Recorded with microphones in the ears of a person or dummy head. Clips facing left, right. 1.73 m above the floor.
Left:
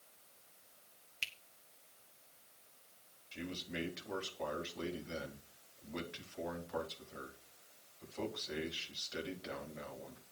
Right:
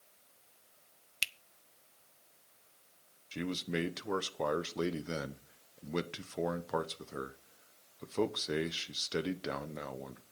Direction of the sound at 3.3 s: 60° right (ahead or behind).